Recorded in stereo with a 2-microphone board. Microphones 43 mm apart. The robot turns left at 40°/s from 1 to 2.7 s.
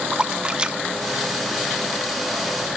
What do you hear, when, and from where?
0.1 s a splash: 20° right (ahead or behind), 0.8 m; by 2.3 s 10° left (ahead or behind), 0.8 m